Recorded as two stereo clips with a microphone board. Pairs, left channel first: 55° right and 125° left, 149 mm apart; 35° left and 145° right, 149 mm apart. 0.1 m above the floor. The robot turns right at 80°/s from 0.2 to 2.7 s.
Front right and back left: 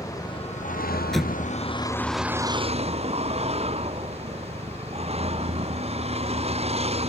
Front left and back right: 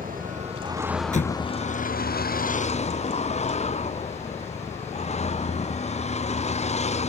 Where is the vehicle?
125° right; by 7.1 s 75° left.